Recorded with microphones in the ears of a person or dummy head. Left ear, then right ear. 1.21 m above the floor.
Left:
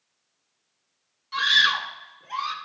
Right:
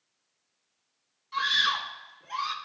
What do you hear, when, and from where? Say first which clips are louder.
1.3 s a scream: left 6 dB; 15° left (ahead or behind), 0.6 m; by 2.5 s 5° left (ahead or behind), 1.3 m